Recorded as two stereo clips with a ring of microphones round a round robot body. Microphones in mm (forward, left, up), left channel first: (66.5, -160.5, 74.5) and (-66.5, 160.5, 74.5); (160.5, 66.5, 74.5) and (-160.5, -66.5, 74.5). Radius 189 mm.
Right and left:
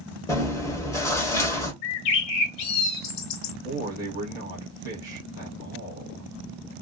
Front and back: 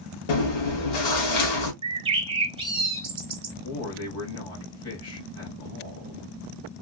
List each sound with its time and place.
0.3 s chewing: 15° left, 1.3 m
1.8 s a bird: 85° right, 0.6 m
3.6 s a man speaking: 35° left, 1.9 m